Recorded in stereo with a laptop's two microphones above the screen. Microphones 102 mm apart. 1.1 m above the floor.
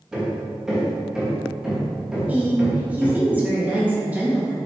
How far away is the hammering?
About 1.4 m.